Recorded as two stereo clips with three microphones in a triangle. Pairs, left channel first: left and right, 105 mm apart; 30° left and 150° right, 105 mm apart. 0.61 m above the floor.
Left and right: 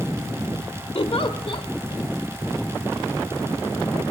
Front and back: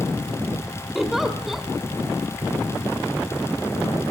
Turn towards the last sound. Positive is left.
turn(degrees=125)